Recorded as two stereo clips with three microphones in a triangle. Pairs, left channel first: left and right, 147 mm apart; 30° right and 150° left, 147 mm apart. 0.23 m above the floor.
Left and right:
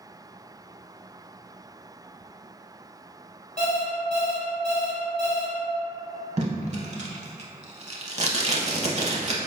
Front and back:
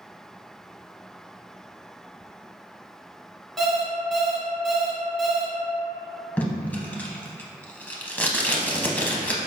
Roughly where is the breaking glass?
I don't hear breaking glass.